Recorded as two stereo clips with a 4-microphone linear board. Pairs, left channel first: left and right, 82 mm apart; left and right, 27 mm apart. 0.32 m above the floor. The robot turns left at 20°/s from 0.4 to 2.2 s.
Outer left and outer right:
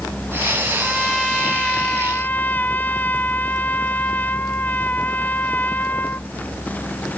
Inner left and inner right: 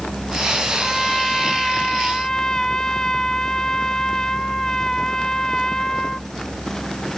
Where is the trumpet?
5° right (ahead or behind); by 6.3 s 25° left (ahead or behind).